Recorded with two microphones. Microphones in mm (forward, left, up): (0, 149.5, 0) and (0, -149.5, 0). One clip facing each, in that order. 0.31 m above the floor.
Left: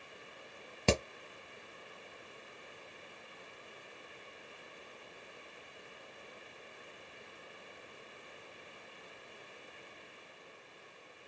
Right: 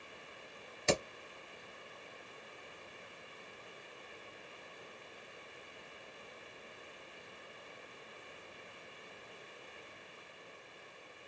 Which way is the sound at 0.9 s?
65° left (ahead or behind).